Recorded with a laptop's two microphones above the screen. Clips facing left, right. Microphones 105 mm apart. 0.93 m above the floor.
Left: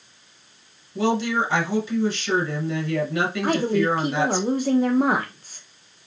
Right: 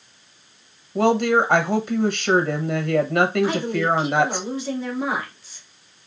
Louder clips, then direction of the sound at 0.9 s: Right 4 dB; 55° right (ahead or behind).